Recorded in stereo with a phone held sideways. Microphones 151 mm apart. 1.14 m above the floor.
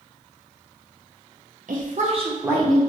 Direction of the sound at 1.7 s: 65° right (ahead or behind).